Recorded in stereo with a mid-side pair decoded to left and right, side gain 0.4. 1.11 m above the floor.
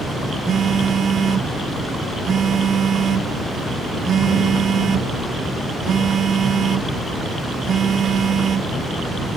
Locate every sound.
0.5 s a phone buzzing: 60° right